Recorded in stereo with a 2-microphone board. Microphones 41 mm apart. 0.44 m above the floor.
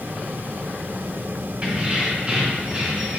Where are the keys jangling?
25° right (ahead or behind), 1.8 m.